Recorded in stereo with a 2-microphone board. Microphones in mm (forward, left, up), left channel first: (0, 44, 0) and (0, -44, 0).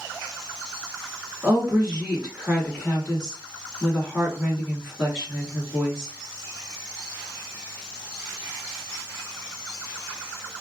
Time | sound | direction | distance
1.4 | a woman speaking | 5° right (ahead or behind) | 1.6 m